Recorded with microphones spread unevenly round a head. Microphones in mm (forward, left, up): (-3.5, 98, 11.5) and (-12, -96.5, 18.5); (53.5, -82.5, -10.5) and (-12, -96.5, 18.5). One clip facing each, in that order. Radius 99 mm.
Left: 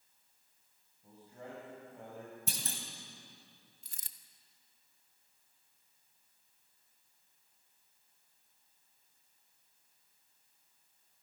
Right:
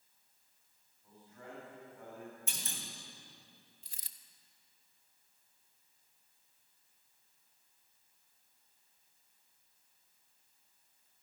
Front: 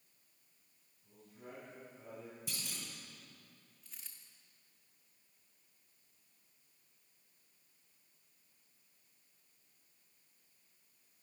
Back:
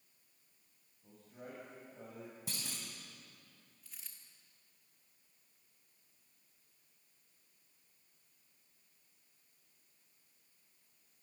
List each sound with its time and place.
1.0 s a man speaking: 150° left, 8.5 m
2.5 s a clunk: 140° left, 3.5 m
3.8 s a dropped coin: 120° left, 1.1 m